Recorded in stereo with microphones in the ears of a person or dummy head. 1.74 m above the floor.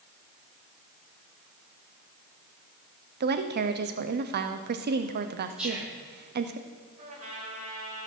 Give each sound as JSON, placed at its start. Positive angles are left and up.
{"t": 3.2, "sound": "a woman speaking", "side_deg": -50, "distance_m": 0.8}
{"t": 5.6, "sound": "whispering", "side_deg": 0, "distance_m": 5.0}
{"t": 7.0, "sound": "a trumpet", "side_deg": -40, "distance_m": 4.0}